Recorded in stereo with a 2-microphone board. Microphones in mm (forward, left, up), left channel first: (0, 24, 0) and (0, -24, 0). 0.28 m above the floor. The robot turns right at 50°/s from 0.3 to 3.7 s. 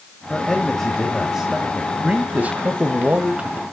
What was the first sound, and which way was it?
A man speaking, 150° left.